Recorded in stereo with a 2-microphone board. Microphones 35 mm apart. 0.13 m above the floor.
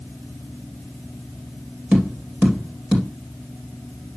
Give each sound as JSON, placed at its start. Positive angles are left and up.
{"t": 1.9, "sound": "tapping", "side_deg": -45, "distance_m": 3.5}